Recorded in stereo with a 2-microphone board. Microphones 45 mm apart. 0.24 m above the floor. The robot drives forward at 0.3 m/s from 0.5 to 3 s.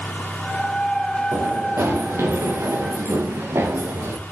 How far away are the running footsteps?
About 6.5 m.